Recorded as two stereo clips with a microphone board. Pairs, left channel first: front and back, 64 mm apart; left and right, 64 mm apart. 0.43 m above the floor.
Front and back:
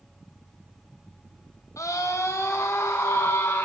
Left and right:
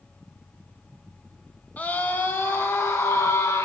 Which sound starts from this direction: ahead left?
A scream, at 1.8 s.